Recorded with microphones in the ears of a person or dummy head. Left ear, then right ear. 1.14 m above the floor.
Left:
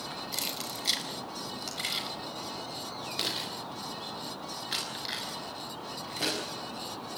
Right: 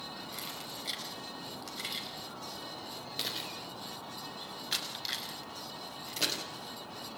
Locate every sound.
0.3 s keys jangling: 25° left (ahead or behind), 4.5 m; by 6.4 s 25° right (ahead or behind), 7 m